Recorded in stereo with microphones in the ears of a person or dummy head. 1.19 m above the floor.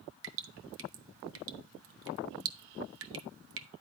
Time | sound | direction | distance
0.2 | dripping | 75° right (ahead or behind) | 0.7 m